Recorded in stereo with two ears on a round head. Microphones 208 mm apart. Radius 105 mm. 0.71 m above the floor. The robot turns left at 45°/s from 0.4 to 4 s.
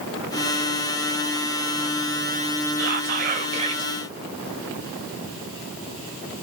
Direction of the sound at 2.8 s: 110° right.